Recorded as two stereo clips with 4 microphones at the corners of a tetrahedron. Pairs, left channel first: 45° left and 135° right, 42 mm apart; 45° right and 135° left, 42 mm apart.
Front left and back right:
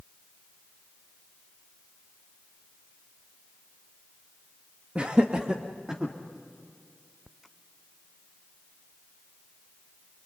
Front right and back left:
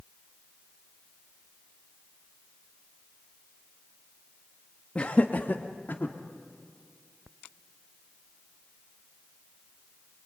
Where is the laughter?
90° right, 1.2 m; by 6.2 s 60° right, 2 m.